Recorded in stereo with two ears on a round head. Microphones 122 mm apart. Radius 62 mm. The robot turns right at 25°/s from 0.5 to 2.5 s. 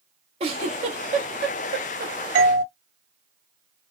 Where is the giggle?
45° right (ahead or behind), 1.9 m; by 2.1 s 70° right (ahead or behind), 1.9 m.